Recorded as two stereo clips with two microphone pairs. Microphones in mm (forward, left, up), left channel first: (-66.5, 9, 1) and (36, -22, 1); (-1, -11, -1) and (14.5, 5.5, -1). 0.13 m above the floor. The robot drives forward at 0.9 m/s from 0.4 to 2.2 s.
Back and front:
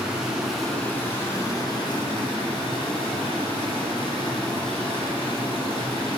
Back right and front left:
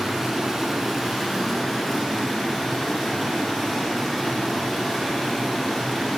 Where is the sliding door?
I don't hear a sliding door.